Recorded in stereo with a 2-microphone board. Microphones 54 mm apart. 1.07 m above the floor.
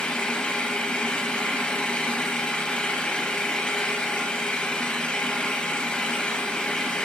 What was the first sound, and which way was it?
An engine running, 15° left (ahead or behind).